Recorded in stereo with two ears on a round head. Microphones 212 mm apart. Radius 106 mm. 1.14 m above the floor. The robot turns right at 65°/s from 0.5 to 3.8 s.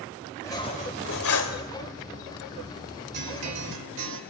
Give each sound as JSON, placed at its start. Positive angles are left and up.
{"t": 0.4, "sound": "cutlery clinking", "azimuth_deg": 15, "distance_m": 3.0}
{"t": 3.1, "sound": "a guitar", "azimuth_deg": -135, "distance_m": 3.0}